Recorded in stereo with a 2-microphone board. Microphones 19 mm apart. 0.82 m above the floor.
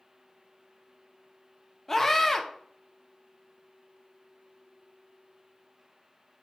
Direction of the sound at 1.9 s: 15° left (ahead or behind).